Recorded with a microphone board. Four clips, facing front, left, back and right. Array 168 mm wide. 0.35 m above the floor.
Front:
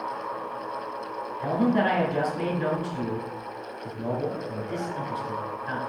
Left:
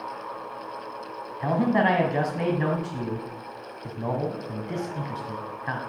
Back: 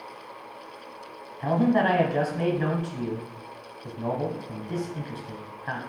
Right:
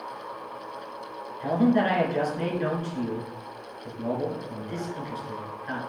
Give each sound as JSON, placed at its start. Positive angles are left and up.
{"t": 1.4, "sound": "a man speaking", "azimuth_deg": 120, "distance_m": 2.0}